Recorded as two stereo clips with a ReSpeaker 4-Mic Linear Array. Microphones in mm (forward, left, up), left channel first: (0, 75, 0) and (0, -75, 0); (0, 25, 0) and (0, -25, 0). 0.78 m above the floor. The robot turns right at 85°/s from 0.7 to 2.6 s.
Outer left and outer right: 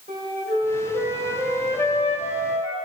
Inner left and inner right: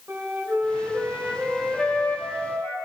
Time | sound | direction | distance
0.1 | a flute | 75° right | 2 m